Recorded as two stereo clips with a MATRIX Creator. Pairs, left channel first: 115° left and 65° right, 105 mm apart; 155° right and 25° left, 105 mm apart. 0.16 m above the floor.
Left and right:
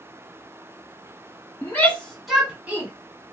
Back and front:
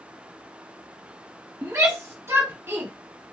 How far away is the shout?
About 1.3 m.